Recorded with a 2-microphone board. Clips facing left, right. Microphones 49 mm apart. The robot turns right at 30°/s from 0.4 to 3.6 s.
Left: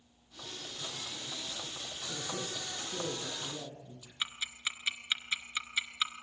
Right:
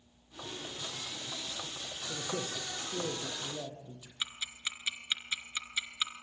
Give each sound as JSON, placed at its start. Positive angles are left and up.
{"t": 2.1, "sound": "a man speaking", "azimuth_deg": -75, "distance_m": 6.0}
{"t": 4.2, "sound": "ticking", "side_deg": 15, "distance_m": 2.0}